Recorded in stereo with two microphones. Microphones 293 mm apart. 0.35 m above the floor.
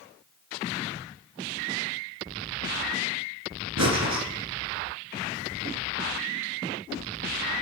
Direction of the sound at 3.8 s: 65° right (ahead or behind).